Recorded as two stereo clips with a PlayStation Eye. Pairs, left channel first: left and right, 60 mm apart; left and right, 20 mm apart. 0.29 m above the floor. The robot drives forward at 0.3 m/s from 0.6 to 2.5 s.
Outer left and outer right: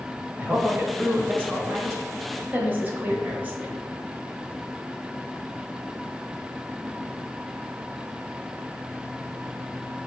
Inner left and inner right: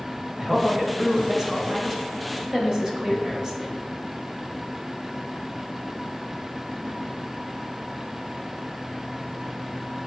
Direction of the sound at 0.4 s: 30° right (ahead or behind).